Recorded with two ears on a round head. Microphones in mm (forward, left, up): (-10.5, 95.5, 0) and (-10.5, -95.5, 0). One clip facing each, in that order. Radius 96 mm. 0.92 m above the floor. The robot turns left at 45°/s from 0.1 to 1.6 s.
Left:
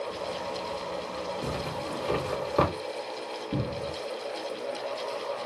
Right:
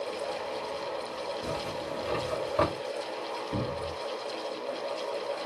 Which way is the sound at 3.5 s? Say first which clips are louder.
Left 2 dB; 60° left (ahead or behind).